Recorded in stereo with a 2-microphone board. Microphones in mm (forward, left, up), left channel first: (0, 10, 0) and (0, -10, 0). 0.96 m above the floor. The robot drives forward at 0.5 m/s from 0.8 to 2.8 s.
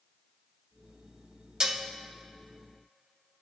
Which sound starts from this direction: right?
Dishes clattering, at 1.6 s.